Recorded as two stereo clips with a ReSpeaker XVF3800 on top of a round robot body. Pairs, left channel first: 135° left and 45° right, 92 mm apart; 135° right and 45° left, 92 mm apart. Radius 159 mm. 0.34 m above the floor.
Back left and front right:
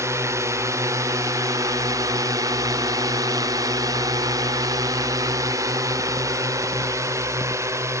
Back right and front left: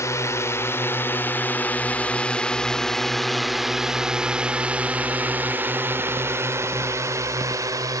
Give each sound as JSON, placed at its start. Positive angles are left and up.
{"t": 0.0, "sound": "a drone", "azimuth_deg": -90}